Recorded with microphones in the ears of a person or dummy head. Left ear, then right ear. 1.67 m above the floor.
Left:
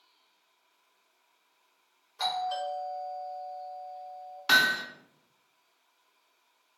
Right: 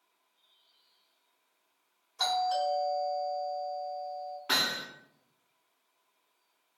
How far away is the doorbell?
About 1.2 m.